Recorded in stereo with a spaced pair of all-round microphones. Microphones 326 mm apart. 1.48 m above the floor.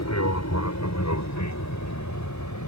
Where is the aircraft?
55° left (ahead or behind); by 2.7 s 65° left (ahead or behind).